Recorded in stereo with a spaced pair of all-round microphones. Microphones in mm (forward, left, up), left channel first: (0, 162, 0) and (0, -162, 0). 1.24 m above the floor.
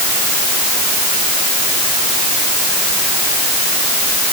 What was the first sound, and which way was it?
Only background noise.